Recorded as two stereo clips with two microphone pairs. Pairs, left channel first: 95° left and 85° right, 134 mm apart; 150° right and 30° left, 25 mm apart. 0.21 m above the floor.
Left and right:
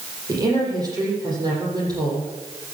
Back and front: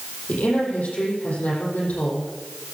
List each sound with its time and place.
0.3 s a woman speaking: 145° right, 8 m